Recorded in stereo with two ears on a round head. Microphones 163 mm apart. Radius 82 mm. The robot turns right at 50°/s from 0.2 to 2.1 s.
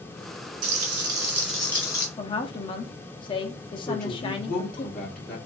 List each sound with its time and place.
0.6 s frying: 45° right, 1.8 m; by 2.1 s 25° left, 1.8 m
2.2 s a woman speaking: 25° left (ahead or behind), 0.9 m
3.9 s a woman speaking: 5° left (ahead or behind), 1.6 m